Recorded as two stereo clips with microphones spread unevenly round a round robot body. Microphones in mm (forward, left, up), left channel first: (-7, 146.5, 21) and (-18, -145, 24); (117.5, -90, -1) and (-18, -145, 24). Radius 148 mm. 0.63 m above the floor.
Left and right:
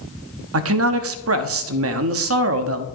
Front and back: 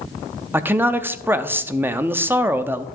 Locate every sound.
0.5 s a man speaking: 75° right, 0.8 m